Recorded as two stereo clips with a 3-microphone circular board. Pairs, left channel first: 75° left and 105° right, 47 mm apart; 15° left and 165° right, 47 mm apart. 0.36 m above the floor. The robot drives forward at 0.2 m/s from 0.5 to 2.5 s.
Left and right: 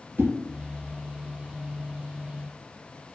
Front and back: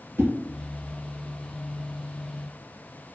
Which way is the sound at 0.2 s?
145° right.